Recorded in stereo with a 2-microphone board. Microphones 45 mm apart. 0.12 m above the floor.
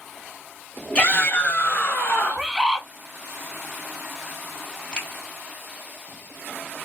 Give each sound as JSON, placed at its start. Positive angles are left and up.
{"t": 0.9, "sound": "a shout", "side_deg": 20, "distance_m": 1.2}
{"t": 2.3, "sound": "a bird", "side_deg": -15, "distance_m": 0.8}
{"t": 4.9, "sound": "a finger snap", "side_deg": 15, "distance_m": 3.0}